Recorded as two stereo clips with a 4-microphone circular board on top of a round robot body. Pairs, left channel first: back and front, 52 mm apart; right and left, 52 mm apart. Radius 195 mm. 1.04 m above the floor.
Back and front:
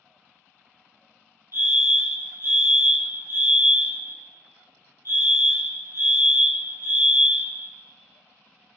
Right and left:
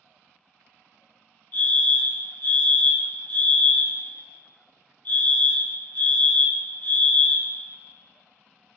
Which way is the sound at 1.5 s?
40° right.